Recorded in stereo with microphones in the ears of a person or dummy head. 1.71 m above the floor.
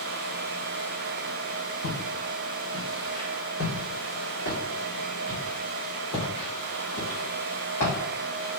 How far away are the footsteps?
About 3.5 m.